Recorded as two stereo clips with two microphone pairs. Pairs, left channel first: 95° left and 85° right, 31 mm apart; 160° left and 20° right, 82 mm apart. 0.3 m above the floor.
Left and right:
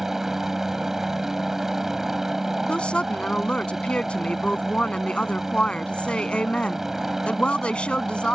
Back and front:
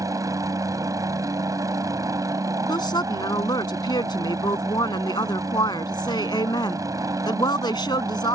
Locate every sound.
0.0 s a helicopter: 10° right
2.7 s a woman speaking: 150° left